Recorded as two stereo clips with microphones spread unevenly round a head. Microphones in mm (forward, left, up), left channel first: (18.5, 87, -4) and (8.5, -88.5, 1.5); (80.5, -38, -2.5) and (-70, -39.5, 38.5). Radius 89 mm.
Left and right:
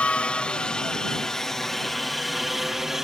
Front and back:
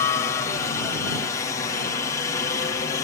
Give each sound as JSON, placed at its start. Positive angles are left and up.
{"t": 0.0, "sound": "a helicopter", "azimuth_deg": 10}